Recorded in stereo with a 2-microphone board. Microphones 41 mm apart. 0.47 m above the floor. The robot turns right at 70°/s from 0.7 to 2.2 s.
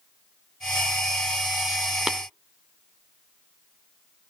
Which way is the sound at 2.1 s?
10° right (ahead or behind).